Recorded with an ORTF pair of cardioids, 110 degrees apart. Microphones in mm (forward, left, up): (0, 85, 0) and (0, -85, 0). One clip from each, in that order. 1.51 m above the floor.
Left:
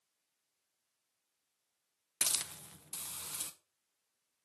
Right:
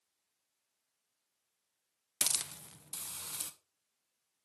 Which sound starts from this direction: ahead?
A hiss, at 2.2 s.